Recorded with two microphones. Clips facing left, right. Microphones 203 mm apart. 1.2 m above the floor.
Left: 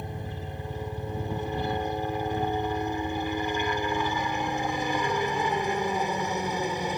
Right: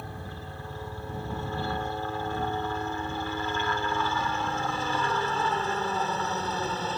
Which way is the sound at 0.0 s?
20° left (ahead or behind).